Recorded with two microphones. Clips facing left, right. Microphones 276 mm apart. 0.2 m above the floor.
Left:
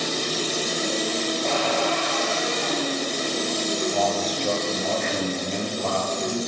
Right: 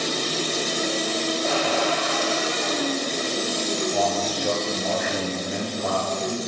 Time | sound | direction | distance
1.4 | a cupboard door | 5° right (ahead or behind) | 6.5 m
3.9 | a man speaking | 10° right (ahead or behind) | 3.5 m